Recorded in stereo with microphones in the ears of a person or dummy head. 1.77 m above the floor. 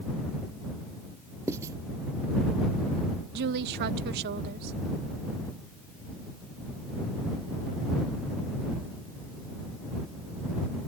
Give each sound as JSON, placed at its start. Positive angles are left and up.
{"t": 1.5, "sound": "writing", "side_deg": -15}
{"t": 3.3, "sound": "a woman speaking", "side_deg": -55}